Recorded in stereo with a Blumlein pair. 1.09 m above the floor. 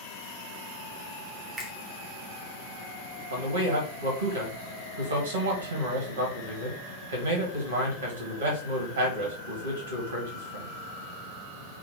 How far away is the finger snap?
About 0.8 m.